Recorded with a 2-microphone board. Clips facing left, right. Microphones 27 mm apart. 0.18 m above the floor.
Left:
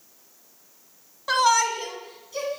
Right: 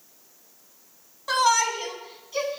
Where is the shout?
10° left (ahead or behind), 1.1 m; by 2.6 s 35° right (ahead or behind), 1.3 m.